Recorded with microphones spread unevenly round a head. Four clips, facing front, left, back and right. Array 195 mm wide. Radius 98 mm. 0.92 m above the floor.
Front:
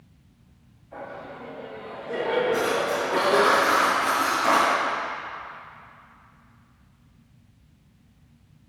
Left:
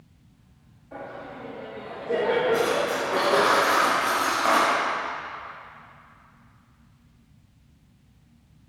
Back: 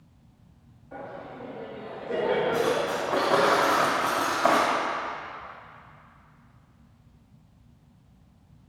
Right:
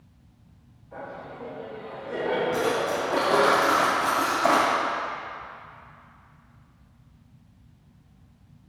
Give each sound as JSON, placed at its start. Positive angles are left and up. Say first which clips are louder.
{"t": 0.9, "sound": "laughter", "louder": "left 1 dB, front 1 dB", "azimuth_deg": 130, "distance_m": 2.0}
{"t": 2.5, "sound": "cutlery clinking", "louder": "left 2 dB, front 1 dB", "azimuth_deg": -150, "distance_m": 1.8}